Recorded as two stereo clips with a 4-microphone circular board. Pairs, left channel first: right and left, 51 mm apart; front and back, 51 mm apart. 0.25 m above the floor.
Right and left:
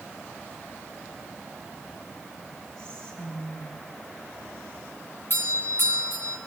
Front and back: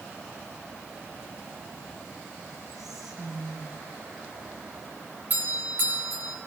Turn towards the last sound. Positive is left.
turn(degrees=-130)